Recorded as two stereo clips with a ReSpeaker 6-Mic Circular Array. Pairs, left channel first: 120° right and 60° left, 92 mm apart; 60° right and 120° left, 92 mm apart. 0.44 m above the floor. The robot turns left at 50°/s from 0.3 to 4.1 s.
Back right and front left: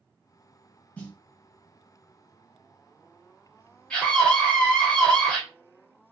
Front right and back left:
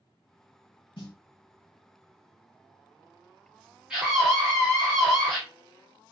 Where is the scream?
175° right, 1.4 m; by 5.4 s 175° left, 1.4 m.